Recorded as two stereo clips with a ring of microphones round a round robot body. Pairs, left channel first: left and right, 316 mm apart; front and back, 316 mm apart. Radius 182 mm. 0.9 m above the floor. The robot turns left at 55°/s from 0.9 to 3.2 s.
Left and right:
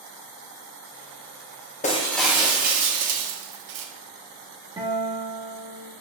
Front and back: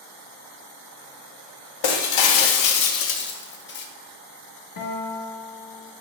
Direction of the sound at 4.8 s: 15° right.